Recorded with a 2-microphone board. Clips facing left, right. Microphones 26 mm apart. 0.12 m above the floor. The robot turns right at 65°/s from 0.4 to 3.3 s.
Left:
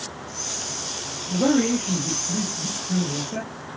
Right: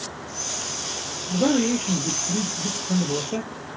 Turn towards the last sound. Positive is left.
turn(degrees=-50)